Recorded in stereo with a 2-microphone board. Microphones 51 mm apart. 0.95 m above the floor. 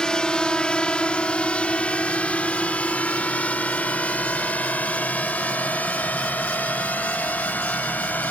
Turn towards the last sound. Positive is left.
turn(degrees=35)  # may be behind; listen again after turning